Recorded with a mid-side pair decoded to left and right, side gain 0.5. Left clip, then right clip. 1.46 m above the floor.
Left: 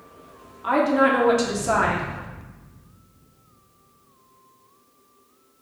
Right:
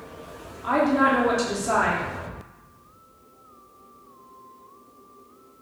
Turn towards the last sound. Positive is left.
turn(degrees=15)